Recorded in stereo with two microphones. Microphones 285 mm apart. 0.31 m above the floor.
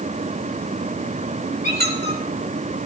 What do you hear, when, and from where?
1.6 s a squeak: 35° right (ahead or behind), 3 m